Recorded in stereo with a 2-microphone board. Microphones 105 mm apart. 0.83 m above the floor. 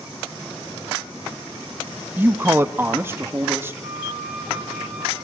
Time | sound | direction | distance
2.2 | a man speaking | 15° right (ahead or behind) | 0.5 m
3.8 | a flute | 15° right (ahead or behind) | 6 m